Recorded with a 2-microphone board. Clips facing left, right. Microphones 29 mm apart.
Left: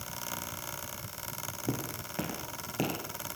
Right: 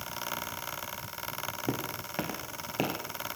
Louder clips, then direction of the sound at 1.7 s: Left 1 dB; 25° right (ahead or behind).